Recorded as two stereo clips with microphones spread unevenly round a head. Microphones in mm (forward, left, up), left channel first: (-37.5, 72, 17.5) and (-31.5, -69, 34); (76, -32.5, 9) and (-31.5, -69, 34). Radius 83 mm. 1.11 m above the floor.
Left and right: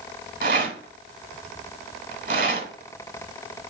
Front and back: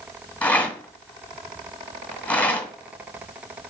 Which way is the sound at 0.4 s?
65° right.